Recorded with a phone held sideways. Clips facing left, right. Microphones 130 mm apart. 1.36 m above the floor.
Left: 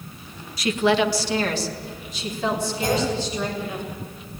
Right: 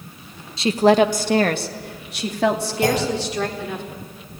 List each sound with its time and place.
0.6 s a woman speaking: 25° right (ahead or behind), 1.3 m; by 3.8 s 80° right, 5 m
2.8 s a clunk: 80° right, 7.5 m